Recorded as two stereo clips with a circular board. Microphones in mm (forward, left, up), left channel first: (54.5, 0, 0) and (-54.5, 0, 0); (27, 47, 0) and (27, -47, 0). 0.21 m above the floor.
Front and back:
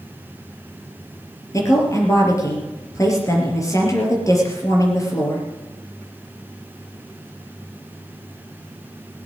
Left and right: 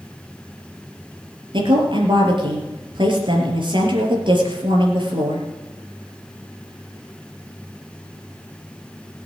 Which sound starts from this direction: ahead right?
A woman speaking, at 1.5 s.